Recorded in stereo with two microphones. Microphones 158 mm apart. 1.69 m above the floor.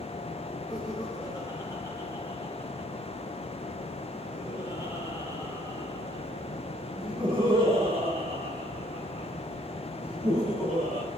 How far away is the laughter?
About 4 m.